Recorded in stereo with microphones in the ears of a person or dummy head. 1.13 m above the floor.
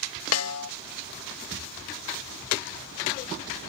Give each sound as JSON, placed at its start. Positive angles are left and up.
{"t": 0.3, "sound": "a snare drum", "side_deg": 75}